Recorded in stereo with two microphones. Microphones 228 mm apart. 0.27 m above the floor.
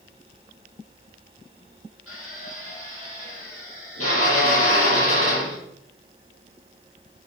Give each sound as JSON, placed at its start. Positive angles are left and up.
{"t": 2.1, "sound": "a drill", "side_deg": 80, "distance_m": 7.0}